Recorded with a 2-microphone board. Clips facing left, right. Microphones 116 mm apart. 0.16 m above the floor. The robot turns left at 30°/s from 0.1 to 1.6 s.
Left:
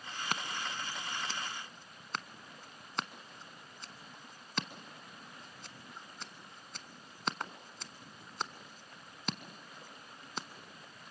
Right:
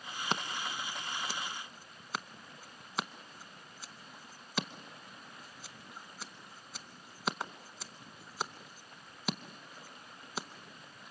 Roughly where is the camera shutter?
I don't hear a camera shutter.